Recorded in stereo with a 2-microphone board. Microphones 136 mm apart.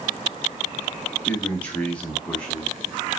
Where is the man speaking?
10° left (ahead or behind), 1.0 m; by 2.7 s 5° left (ahead or behind), 1.6 m.